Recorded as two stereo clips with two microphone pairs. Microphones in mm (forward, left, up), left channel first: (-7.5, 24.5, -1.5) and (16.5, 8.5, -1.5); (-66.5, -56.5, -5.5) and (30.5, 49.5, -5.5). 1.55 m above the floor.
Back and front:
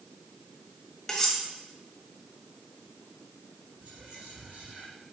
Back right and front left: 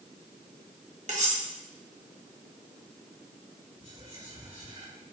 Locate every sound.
1.1 s cutlery clinking: 70° left, 1.4 m
3.8 s whispering: straight ahead, 3.5 m